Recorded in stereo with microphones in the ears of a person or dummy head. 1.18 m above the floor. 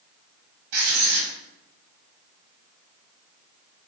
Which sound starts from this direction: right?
Writing, at 0.7 s.